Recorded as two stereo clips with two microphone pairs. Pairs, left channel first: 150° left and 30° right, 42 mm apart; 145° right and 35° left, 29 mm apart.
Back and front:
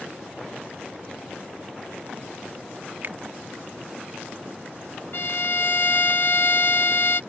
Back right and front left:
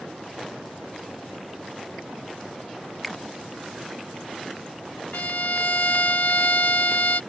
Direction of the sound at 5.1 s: 170° right.